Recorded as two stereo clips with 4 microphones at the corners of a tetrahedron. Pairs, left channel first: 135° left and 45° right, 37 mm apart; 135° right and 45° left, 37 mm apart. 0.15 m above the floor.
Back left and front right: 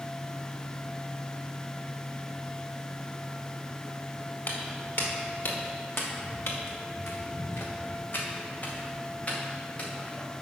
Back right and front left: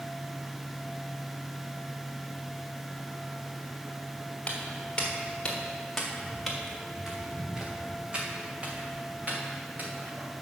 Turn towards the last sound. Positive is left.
turn(degrees=80)